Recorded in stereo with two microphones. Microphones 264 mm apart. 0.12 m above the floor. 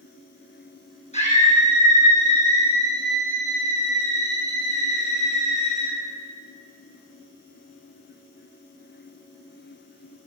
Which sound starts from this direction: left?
A scream, at 1.1 s.